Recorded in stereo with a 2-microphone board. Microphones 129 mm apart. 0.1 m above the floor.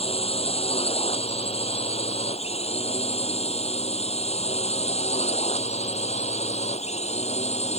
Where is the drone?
55° left (ahead or behind); by 7.8 s 65° left (ahead or behind).